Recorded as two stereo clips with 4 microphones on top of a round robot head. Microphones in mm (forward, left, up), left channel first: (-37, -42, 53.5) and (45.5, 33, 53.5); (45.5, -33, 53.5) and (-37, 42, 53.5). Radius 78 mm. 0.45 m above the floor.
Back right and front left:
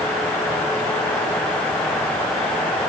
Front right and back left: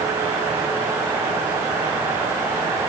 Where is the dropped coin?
I don't hear a dropped coin.